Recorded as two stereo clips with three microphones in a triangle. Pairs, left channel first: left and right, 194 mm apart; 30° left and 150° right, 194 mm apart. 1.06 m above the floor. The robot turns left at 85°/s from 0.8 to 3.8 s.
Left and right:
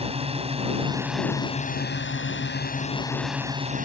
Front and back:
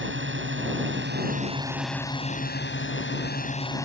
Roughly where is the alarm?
I don't hear an alarm.